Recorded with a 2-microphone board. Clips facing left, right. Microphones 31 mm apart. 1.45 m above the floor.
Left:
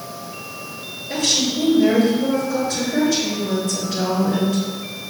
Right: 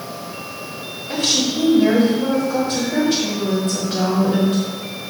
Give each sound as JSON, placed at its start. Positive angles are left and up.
{"t": 1.1, "sound": "a woman speaking", "side_deg": -60, "distance_m": 2.5}